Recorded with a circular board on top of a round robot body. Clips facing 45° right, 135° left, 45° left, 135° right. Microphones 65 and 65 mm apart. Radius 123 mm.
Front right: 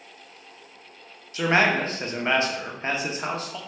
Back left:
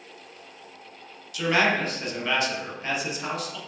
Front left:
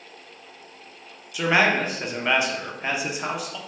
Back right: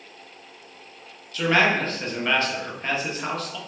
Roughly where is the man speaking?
Ahead.